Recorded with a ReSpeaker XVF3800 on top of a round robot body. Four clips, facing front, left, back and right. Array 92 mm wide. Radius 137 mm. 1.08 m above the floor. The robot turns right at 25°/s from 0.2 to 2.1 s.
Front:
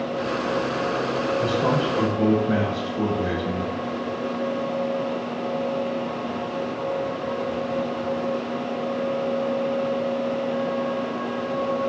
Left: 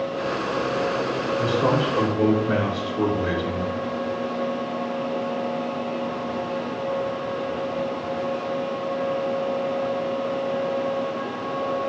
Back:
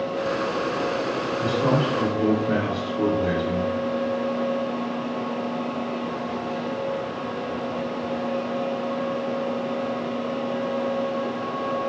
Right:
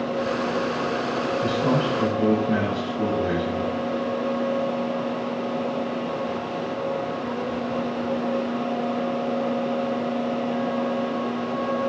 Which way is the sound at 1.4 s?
60° left.